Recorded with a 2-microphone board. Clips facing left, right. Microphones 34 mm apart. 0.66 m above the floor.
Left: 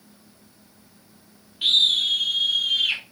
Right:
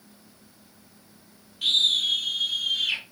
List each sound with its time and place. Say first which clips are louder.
1.6 s a scream: left 3 dB; 30° left (ahead or behind), 1.3 m; by 3.0 s 40° left (ahead or behind), 3 m